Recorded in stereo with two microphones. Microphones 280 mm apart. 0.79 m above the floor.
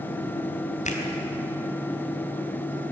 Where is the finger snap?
25° left (ahead or behind), 3.5 m.